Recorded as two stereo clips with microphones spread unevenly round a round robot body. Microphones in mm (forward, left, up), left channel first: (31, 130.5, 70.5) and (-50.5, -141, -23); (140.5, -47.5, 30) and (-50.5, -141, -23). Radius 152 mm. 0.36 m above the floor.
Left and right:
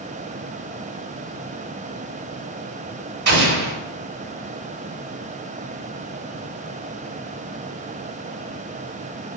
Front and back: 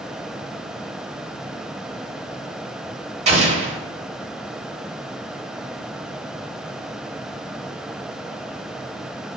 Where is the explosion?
120° right, 1.0 m.